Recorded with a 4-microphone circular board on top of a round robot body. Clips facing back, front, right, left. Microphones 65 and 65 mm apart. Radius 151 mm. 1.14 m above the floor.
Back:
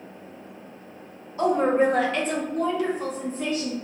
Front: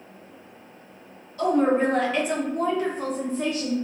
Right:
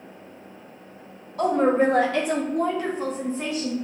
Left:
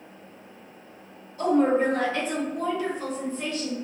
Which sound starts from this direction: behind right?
A woman speaking, at 1.4 s.